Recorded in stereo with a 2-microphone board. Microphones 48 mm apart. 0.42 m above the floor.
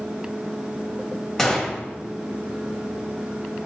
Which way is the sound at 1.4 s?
10° left (ahead or behind).